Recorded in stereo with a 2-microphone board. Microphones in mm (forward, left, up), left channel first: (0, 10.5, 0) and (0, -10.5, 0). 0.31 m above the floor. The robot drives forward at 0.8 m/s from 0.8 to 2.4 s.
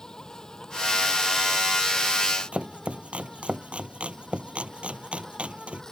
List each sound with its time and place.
0.0 s an insect: 35° left (ahead or behind); by 5.9 s 30° left (ahead or behind)
2.5 s chopping: 60° right (ahead or behind)